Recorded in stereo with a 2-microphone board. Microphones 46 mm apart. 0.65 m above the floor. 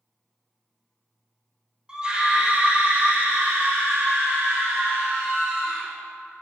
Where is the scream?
20° right (ahead or behind), 2.5 m; by 5.9 s 70° right (ahead or behind), 4 m.